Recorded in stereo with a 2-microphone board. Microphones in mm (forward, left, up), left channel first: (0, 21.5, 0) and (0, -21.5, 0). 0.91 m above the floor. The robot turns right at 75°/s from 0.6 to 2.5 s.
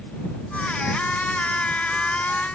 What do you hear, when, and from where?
Only background noise.